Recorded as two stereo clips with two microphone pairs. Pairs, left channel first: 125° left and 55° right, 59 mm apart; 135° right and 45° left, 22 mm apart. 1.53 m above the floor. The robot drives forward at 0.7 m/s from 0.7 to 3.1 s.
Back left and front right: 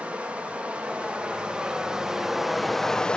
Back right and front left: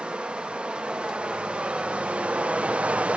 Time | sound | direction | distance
0.0 | running water | 15° left | 2 m